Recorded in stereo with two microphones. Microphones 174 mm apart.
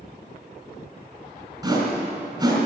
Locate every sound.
1.6 s a whoosh: 20° right (ahead or behind), 3 m